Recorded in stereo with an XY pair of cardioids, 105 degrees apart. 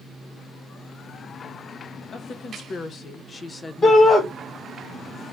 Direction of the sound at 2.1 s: 65° left.